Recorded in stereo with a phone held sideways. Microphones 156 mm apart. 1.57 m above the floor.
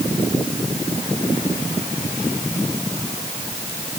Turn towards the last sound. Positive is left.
No sound to turn to.